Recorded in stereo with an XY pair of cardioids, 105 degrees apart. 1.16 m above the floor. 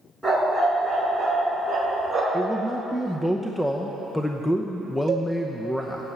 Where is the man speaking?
10° left, 0.8 m.